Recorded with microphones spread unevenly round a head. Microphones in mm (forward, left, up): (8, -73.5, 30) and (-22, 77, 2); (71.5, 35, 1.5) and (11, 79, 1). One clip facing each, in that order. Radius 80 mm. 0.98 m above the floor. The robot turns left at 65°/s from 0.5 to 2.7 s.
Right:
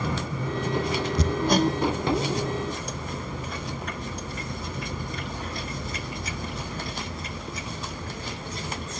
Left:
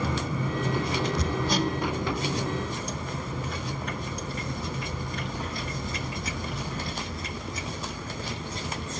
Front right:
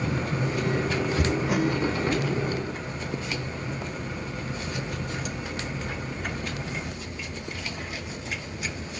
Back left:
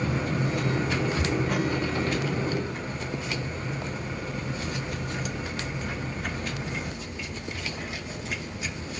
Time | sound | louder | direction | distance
1.2 | hammering | right 4 dB, front right 2 dB | 100° right | 1.2 m